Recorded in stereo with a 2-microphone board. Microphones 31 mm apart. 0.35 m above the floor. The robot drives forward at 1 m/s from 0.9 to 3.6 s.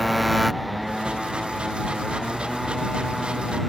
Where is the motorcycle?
Centre (ahead or behind).